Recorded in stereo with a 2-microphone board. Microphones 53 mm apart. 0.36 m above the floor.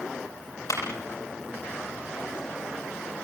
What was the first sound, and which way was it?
A clap, 70° left (ahead or behind).